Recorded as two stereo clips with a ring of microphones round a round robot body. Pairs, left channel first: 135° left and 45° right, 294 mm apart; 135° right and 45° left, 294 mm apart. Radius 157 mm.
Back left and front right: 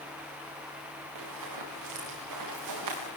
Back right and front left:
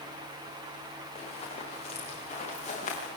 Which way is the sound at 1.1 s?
65° right.